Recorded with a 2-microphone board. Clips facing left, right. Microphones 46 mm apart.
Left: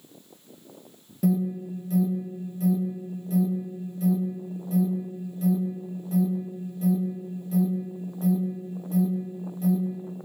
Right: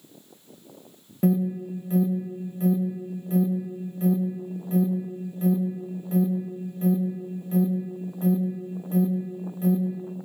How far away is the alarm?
About 2.5 m.